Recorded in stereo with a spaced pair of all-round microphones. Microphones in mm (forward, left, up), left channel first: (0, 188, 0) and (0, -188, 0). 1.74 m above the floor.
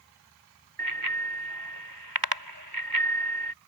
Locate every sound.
0.8 s a bicycle bell: 70° right (ahead or behind)